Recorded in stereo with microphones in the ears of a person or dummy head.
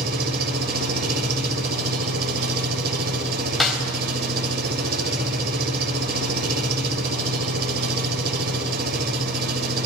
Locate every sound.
0.0 s an engine running: 60° right (ahead or behind), 4 m
3.6 s a snare drum: centre (ahead or behind), 4 m